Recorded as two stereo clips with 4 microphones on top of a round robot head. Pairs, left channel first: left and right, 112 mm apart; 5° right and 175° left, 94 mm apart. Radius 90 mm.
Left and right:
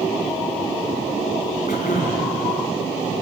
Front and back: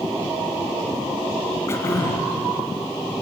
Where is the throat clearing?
55° left, 3.5 m.